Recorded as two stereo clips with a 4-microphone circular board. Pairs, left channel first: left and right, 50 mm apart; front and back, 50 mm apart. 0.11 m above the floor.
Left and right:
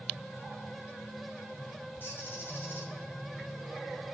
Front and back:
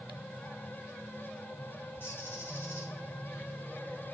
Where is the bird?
45° left, 7 m.